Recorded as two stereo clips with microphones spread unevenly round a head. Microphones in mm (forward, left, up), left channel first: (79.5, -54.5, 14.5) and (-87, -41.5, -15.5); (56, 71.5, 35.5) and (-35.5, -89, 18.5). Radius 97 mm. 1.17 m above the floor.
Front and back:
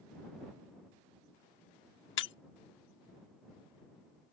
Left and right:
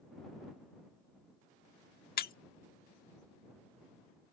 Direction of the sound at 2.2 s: 20° left.